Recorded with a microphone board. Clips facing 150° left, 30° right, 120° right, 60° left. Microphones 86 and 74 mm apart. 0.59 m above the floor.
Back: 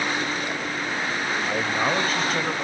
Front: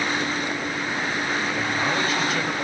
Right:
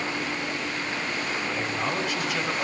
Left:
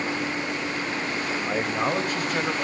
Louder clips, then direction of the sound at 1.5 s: Back 1 dB, left 6 dB; 105° left.